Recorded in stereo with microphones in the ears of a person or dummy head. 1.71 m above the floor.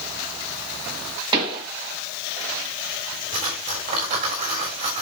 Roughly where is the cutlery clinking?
Right.